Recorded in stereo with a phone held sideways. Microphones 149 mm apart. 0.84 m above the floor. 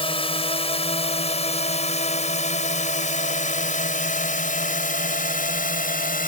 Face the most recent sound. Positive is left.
turn(degrees=70)  # may be behind; listen again after turning